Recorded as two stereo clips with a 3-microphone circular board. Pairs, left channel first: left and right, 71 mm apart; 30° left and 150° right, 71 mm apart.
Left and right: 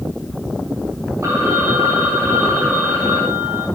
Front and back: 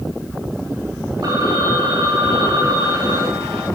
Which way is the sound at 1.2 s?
140° right.